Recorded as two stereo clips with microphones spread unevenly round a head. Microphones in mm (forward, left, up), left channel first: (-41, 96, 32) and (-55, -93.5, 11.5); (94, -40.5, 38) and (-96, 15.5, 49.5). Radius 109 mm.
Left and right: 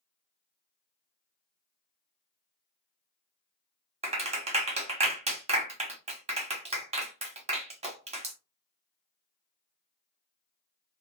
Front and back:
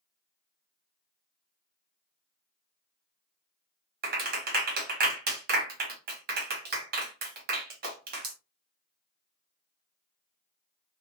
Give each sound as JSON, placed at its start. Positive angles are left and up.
{"t": 4.0, "sound": "a clap", "azimuth_deg": -155, "distance_m": 1.0}